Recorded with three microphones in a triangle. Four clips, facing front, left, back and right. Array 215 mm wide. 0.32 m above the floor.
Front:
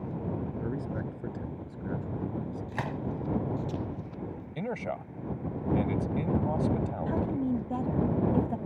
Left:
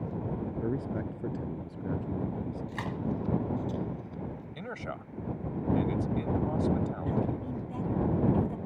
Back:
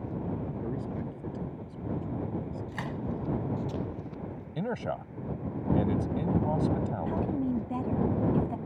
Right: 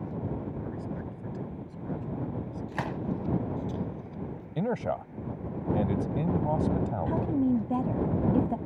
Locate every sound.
0.6 s a man speaking: 75° left; by 2.6 s 85° left
2.7 s a gunshot: 55° right
4.5 s a man speaking: 100° right
7.1 s a woman speaking: 80° right